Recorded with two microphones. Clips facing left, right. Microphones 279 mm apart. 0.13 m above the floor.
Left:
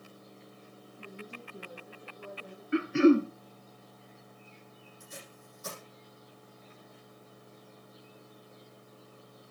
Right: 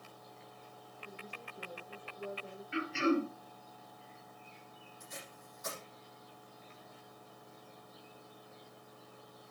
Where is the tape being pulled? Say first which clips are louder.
Left 1 dB; 35° left (ahead or behind), 6 m.